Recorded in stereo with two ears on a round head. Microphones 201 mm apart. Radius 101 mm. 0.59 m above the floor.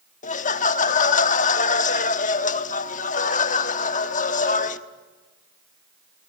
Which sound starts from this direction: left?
Laughter, at 0.2 s.